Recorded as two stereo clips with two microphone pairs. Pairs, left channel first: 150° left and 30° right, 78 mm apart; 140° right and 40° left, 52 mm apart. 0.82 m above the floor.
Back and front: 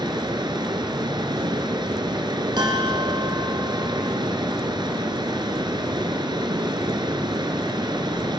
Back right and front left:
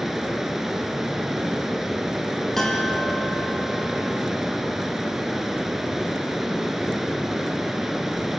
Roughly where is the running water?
Ahead right.